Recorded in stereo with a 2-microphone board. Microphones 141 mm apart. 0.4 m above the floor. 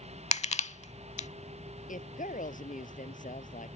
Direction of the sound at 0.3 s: 50° left (ahead or behind).